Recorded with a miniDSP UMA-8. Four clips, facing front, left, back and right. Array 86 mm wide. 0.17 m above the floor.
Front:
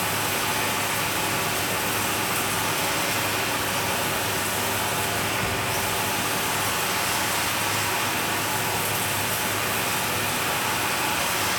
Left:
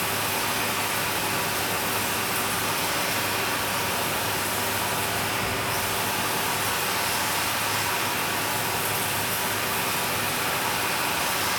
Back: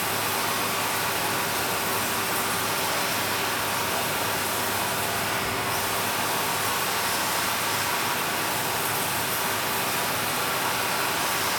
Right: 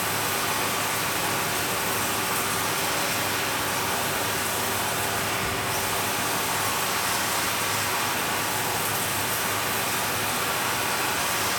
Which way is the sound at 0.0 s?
10° left.